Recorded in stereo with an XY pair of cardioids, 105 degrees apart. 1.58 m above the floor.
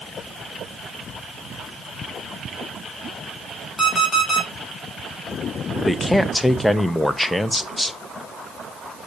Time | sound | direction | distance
3.8 | an alarm clock | 30° left | 5.5 m
5.8 | a man speaking | 5° left | 0.7 m